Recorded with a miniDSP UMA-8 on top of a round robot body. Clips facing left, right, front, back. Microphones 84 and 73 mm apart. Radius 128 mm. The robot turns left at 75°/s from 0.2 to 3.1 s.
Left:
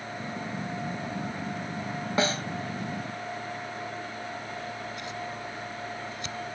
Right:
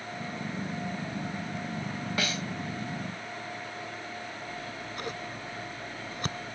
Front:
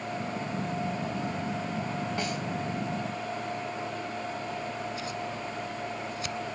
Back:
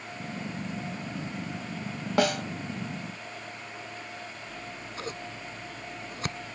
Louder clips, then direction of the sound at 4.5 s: Left 3 dB, front 7 dB; 135° right.